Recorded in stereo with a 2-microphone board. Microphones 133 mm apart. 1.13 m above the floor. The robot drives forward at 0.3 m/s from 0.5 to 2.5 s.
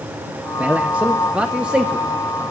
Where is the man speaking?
10° right (ahead or behind), 0.5 m; by 2.4 s 5° right (ahead or behind), 1.0 m.